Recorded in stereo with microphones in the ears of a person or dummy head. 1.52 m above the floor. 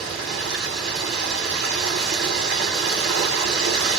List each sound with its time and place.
0.0 s running water: 65° right (ahead or behind), 2.5 m